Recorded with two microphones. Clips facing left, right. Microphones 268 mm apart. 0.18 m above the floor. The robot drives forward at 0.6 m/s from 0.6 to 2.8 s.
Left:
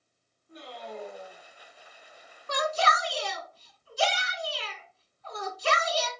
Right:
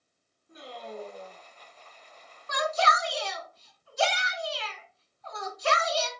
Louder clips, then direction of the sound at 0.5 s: Even; 5° right (ahead or behind).